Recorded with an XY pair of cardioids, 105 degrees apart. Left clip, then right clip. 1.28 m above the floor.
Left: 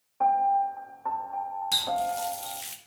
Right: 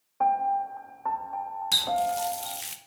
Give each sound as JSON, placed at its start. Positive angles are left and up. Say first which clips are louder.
{"t": 0.2, "sound": "a piano", "louder": "left 2 dB", "azimuth_deg": -20, "distance_m": 1.1}
{"t": 1.7, "sound": "a running tap", "louder": "right 3 dB", "azimuth_deg": -25, "distance_m": 0.7}